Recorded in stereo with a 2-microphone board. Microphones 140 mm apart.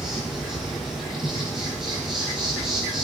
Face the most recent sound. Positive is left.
turn(degrees=-5)  # may be behind; listen again after turning